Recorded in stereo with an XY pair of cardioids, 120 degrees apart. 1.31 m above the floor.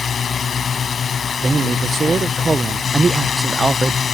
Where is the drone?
35° left.